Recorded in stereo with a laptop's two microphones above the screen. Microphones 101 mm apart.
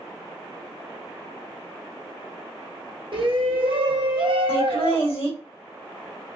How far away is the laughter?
About 1.6 m.